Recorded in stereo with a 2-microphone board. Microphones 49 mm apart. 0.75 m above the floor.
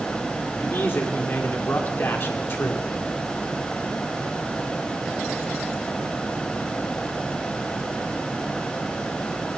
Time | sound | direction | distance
0.6 | a man speaking | 50° left (ahead or behind) | 2 m